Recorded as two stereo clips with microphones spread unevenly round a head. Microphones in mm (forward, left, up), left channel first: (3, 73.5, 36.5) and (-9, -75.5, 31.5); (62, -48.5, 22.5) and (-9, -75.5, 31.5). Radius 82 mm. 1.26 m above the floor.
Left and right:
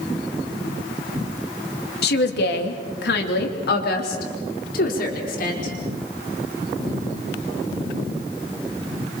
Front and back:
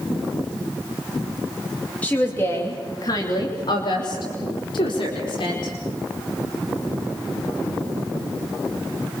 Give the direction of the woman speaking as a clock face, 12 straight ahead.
9 o'clock.